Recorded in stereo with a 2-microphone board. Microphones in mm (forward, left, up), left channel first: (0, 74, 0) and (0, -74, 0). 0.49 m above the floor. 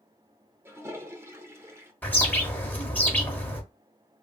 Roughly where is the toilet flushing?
Centre.